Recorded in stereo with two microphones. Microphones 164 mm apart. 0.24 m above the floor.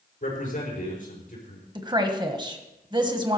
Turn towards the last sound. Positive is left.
turn(degrees=-30)  # may be behind; listen again after turning